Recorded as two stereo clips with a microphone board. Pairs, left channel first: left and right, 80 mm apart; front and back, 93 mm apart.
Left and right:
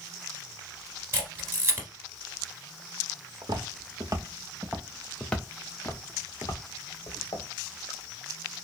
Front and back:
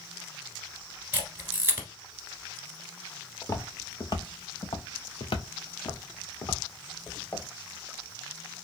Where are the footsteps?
65° right, 1.0 m; by 7.5 s 55° left, 1.7 m.